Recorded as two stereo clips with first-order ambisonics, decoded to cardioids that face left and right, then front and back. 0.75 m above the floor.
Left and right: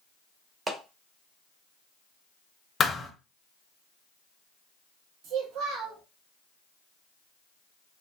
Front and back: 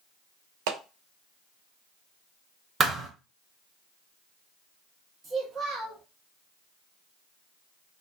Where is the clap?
165° right, 0.6 m.